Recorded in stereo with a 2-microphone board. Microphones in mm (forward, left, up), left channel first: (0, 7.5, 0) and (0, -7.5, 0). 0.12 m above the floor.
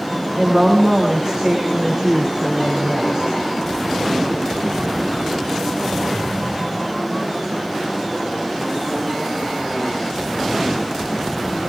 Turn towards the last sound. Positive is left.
turn(degrees=-45)  # may be behind; listen again after turning